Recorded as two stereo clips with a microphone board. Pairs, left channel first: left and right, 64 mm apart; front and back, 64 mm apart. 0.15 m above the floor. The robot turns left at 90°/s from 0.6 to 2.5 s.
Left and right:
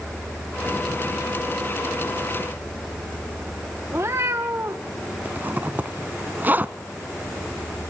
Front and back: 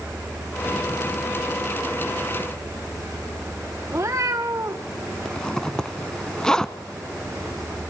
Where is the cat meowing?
135° right, 2 m.